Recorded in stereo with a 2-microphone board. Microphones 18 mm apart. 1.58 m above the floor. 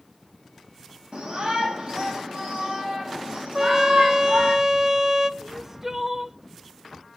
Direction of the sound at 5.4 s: 20° right (ahead or behind).